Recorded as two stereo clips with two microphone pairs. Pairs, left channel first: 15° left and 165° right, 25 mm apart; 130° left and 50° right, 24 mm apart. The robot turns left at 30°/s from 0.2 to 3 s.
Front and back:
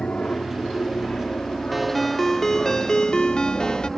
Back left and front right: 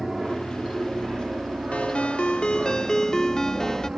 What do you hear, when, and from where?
0.0 s an aircraft: 15° left; by 4.0 s 80° right
1.7 s a ringtone: 105° left; by 3.9 s 65° left